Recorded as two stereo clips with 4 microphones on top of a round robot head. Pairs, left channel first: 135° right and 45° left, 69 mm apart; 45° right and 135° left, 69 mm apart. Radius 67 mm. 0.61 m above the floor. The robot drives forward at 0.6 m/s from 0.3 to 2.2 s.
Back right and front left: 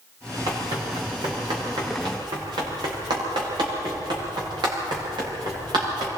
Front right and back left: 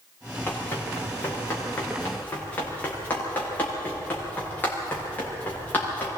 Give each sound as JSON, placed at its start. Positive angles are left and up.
{"t": 0.5, "sound": "running footsteps", "azimuth_deg": 20, "distance_m": 6.5}